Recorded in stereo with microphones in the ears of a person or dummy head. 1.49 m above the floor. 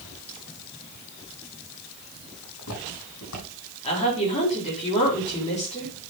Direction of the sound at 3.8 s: 35° left (ahead or behind).